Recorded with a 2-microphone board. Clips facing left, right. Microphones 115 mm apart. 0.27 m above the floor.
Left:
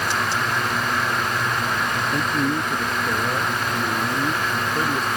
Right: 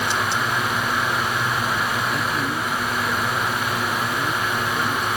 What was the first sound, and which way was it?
A man speaking, 35° left (ahead or behind).